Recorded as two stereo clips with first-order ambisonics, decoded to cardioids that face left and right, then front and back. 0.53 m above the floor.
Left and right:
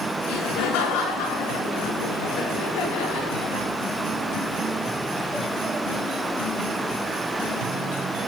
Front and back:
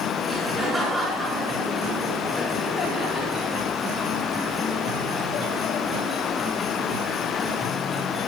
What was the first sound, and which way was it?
Laughter, 100° left.